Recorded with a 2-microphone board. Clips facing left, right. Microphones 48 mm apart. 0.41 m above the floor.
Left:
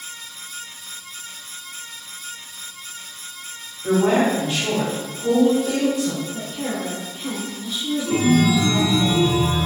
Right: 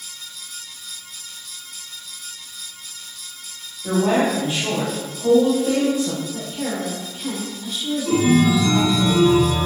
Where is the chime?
5° right (ahead or behind), 1.2 m.